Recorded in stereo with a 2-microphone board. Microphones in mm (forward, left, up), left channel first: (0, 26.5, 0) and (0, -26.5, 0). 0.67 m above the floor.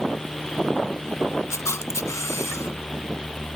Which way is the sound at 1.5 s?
65° left (ahead or behind).